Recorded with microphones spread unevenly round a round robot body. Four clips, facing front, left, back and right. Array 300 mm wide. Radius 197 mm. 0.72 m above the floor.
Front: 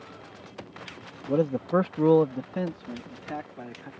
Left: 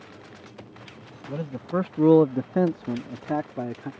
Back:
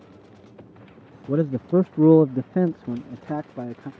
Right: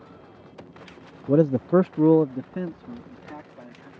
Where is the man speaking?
90° right; by 3.9 s 135° left.